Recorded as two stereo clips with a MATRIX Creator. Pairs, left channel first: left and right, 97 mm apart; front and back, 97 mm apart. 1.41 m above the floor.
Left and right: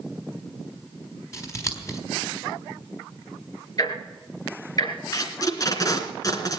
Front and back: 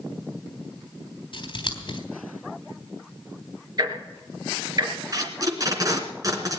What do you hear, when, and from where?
1.3 s scissors: 35° left, 3.5 m
3.8 s ticking: 135° left, 3.5 m
5.1 s tape being pulled: 135° left, 2.5 m